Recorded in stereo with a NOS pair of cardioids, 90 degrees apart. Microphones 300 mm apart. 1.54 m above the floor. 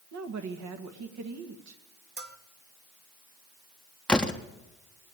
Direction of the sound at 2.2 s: 35° right.